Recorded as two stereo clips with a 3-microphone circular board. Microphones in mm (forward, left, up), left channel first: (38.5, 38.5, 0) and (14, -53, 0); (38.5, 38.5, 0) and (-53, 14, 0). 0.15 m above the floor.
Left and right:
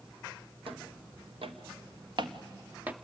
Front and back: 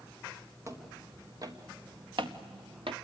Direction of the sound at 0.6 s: 110° right.